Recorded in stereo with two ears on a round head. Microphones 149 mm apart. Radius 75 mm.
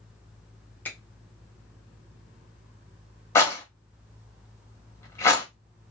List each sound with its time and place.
0.8 s a finger snap: 10° left (ahead or behind), 0.9 m
3.4 s a rattle: 15° left (ahead or behind), 0.7 m